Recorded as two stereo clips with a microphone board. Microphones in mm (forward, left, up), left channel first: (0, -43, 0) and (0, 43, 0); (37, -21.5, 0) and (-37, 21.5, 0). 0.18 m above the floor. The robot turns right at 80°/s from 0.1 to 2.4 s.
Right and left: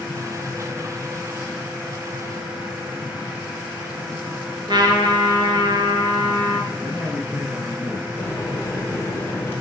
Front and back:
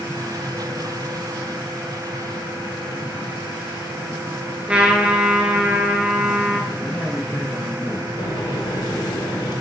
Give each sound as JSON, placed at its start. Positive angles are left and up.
{"t": 4.7, "sound": "a trumpet", "azimuth_deg": 70, "distance_m": 1.2}
{"t": 6.7, "sound": "a man speaking", "azimuth_deg": 45, "distance_m": 1.7}
{"t": 8.2, "sound": "a microwave", "azimuth_deg": -35, "distance_m": 1.8}